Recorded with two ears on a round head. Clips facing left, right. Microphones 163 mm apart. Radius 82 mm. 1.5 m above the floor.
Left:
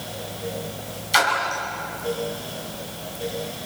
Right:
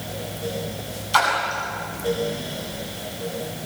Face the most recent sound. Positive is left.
turn(degrees=20)  # may be behind; listen again after turning